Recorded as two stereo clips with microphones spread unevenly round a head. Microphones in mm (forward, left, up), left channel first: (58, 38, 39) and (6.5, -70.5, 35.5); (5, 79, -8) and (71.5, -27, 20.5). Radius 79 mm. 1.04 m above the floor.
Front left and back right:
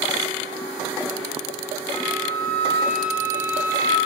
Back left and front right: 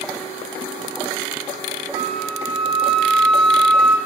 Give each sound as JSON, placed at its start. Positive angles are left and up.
{"t": 1.9, "sound": "a flute", "azimuth_deg": 145, "distance_m": 3.5}